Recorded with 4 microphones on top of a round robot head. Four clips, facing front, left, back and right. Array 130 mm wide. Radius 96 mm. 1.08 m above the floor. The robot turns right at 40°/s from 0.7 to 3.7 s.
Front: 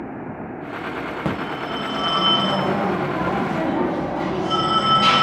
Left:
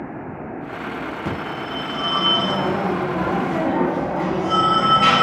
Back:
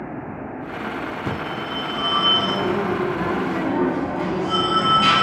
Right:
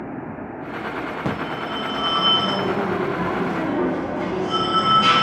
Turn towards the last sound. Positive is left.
turn(degrees=75)